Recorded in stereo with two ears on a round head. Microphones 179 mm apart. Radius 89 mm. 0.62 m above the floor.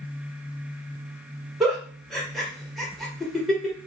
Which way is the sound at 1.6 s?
Centre (ahead or behind).